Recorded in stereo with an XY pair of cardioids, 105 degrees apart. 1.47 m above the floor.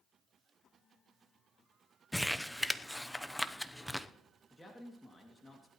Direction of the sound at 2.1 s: 5° left.